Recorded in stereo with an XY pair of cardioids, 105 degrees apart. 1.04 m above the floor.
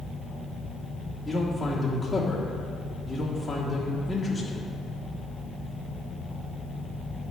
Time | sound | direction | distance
1.2 | a man speaking | 5° left | 1.4 m